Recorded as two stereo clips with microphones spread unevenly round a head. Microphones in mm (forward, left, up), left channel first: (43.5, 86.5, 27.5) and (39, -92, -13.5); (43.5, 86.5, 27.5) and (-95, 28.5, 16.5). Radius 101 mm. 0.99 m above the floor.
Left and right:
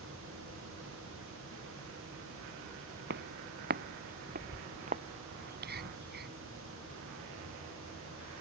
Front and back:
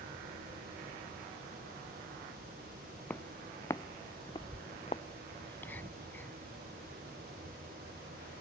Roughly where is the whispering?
Ahead right.